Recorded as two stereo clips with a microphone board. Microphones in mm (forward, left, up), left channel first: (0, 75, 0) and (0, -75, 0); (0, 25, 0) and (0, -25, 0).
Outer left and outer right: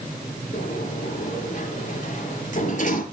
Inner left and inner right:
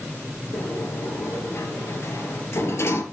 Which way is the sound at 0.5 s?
60° left (ahead or behind).